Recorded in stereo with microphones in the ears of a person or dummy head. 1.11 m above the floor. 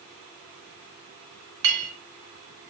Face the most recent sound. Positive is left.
turn(degrees=-65)  # may be behind; listen again after turning